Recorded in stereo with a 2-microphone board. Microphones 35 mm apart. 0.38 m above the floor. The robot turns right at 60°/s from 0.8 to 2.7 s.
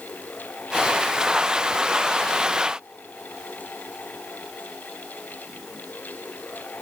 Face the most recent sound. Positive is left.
No sound to turn to.